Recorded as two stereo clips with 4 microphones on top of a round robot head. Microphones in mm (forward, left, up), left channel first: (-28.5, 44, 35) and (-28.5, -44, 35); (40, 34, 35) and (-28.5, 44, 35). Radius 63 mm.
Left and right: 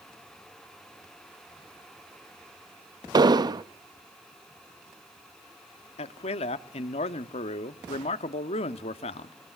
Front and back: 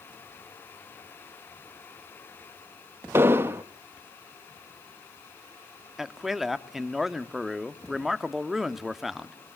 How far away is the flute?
No flute in this recording.